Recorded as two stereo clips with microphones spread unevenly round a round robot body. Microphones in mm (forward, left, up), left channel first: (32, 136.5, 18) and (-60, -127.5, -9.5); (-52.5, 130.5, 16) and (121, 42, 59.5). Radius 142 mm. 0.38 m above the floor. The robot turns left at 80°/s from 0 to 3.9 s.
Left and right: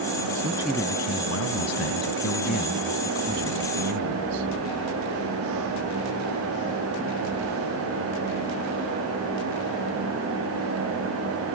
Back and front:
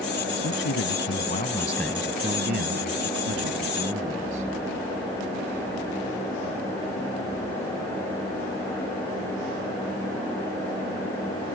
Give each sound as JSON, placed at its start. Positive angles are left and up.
{"t": 0.3, "sound": "a man speaking", "azimuth_deg": -170}